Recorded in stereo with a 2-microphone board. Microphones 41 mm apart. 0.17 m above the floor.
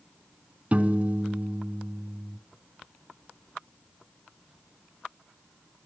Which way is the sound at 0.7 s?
35° right (ahead or behind).